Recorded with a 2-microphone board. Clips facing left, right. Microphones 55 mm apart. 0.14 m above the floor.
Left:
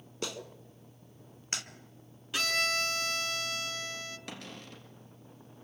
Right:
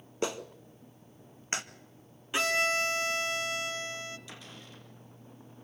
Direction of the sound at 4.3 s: 65° left (ahead or behind).